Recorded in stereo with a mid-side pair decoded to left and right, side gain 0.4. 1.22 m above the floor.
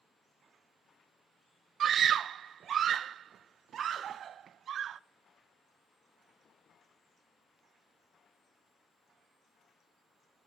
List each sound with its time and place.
1.8 s a scream: 65° right, 0.5 m